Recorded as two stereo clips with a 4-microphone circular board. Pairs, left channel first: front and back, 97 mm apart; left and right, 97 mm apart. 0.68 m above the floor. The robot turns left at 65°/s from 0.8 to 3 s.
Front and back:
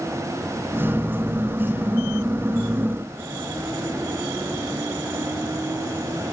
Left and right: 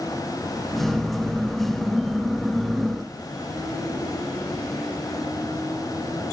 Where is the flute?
No flute in this recording.